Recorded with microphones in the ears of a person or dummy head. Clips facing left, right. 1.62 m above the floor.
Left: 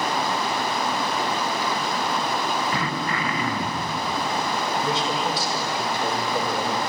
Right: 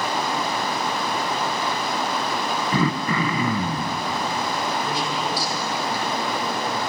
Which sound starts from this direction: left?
A man speaking, at 4.8 s.